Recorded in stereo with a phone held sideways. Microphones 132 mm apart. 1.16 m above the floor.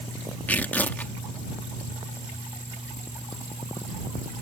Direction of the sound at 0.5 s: 15° left (ahead or behind).